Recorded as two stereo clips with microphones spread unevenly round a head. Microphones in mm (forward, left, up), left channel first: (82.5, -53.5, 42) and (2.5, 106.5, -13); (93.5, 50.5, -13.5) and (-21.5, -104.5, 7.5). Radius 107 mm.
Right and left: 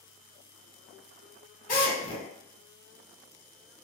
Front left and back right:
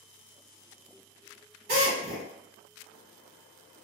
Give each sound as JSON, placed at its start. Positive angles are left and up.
{"t": 1.7, "sound": "a drill", "azimuth_deg": -100, "distance_m": 1.4}